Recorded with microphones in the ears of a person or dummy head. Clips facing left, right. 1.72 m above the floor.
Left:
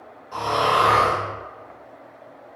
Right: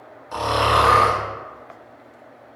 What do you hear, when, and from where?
0.3 s snoring: 70° right (ahead or behind), 1.0 m